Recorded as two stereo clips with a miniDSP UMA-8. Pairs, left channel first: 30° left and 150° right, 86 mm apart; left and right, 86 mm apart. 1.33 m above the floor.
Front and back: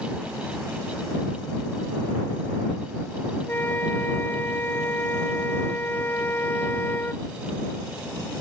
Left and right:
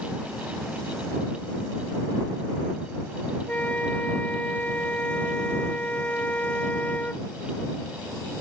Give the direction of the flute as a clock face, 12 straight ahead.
11 o'clock.